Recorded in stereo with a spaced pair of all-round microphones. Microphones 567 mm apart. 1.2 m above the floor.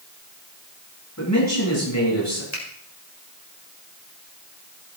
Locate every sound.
1.2 s a man speaking: 25° left (ahead or behind), 8 m
2.5 s a finger snap: 45° left (ahead or behind), 4.5 m